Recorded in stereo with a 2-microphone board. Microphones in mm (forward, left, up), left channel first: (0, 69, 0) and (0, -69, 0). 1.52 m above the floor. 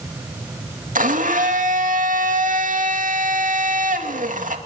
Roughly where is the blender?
Right.